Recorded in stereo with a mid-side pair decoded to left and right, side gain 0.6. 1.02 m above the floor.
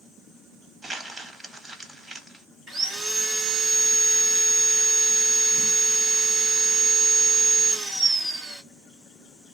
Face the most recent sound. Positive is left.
turn(degrees=-30)